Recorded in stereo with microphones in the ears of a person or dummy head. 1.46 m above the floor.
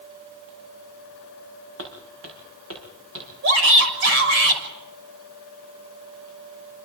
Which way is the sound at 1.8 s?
75° right (ahead or behind).